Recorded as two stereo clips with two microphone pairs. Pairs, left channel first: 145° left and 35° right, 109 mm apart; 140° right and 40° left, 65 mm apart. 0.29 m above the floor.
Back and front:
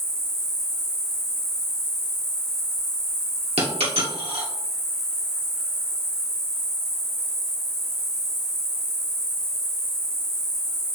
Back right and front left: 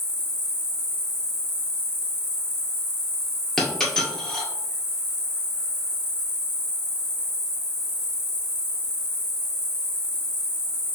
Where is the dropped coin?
50° right, 1.8 m.